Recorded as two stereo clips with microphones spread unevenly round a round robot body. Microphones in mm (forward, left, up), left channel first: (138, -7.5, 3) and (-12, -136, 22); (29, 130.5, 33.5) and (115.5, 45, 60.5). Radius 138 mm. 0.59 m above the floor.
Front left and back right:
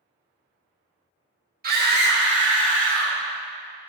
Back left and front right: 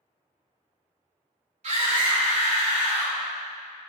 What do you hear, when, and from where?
1.6 s a scream: 100° right, 1.8 m; by 3.2 s 130° right, 2.5 m